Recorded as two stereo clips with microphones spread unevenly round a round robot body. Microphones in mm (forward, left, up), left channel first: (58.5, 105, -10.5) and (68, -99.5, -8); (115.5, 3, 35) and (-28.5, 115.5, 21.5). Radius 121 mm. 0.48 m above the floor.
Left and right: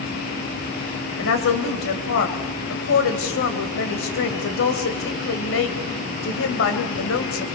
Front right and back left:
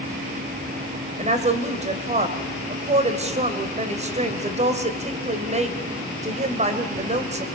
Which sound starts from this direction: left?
A woman speaking, at 1.2 s.